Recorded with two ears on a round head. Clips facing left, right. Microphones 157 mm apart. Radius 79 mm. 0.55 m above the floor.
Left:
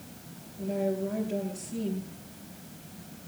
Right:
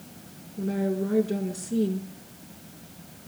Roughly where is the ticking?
No ticking in this recording.